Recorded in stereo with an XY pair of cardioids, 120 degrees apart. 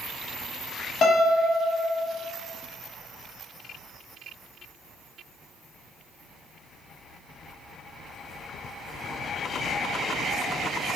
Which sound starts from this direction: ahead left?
A piano, at 1.0 s.